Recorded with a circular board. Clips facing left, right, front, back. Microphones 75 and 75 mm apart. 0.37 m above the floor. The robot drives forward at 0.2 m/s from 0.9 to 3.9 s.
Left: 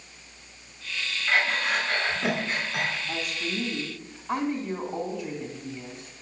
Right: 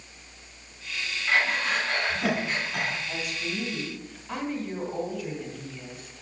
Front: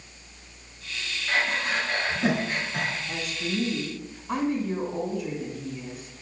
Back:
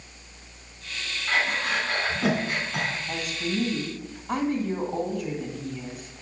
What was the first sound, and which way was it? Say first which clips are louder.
Breathing: even, back 1 dB; 175° right.